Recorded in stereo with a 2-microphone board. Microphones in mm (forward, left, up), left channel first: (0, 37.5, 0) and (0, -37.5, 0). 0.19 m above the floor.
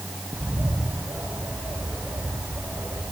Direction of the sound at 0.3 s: 30° right (ahead or behind).